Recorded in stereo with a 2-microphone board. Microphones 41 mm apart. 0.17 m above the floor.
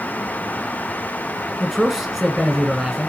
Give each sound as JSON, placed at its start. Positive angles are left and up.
{"t": 1.6, "sound": "a man speaking", "side_deg": -10, "distance_m": 1.9}